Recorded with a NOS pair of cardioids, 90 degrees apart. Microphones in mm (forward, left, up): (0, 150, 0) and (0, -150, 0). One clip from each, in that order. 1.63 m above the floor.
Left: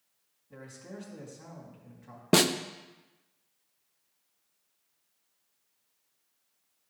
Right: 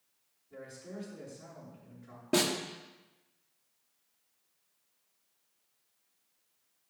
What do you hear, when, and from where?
0.5 s a man speaking: 70° left, 4 m
2.3 s a snare drum: 50° left, 0.7 m